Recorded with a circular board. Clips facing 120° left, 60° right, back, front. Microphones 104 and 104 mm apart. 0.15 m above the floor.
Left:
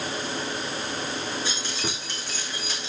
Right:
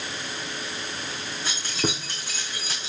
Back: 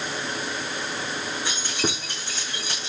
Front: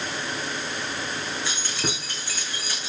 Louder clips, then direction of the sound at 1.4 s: Right 2 dB, back 2 dB; 105° right.